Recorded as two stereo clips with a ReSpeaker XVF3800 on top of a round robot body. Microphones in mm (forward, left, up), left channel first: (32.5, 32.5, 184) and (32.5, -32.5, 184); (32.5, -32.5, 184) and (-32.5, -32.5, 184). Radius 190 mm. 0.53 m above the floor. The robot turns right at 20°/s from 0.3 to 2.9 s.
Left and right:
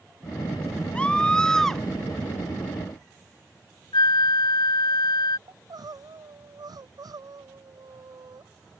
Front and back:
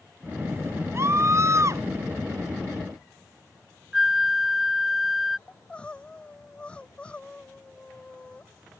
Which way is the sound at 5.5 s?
75° right.